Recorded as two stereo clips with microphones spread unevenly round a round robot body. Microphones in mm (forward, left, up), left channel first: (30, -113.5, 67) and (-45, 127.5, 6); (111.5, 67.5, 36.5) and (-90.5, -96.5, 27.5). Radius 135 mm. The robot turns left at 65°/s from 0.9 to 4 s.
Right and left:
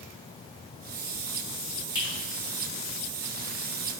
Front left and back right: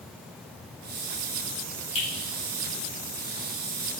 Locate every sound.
1.9 s a finger snap: 10° left, 1.7 m; by 2.1 s straight ahead, 1.7 m